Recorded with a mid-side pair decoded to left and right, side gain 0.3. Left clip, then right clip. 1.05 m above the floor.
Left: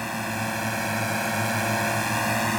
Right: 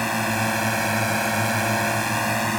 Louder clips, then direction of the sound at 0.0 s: Right 6 dB; 65° right.